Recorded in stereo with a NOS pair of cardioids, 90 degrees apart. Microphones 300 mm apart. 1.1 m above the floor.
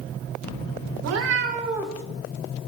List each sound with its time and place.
1.0 s a cat meowing: 65° right, 0.7 m; by 2.0 s 10° left, 0.6 m